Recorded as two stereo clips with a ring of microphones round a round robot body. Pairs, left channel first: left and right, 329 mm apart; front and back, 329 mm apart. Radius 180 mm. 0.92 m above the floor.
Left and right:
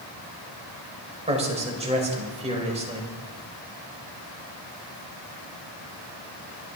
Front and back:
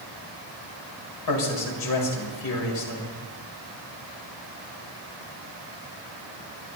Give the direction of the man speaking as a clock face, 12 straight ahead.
1 o'clock.